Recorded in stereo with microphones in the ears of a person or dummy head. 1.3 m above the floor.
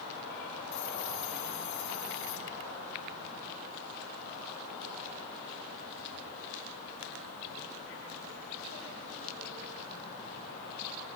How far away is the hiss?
About 5 m.